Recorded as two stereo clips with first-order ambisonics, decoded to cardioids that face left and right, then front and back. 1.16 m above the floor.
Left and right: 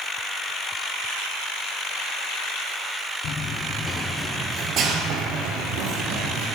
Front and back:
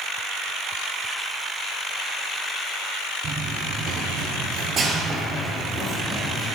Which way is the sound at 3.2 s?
125° left.